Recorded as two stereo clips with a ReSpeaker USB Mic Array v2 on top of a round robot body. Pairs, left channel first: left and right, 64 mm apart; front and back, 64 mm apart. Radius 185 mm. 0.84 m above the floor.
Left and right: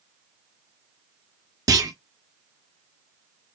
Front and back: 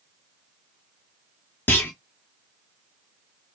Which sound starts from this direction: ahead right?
A clunk, at 1.7 s.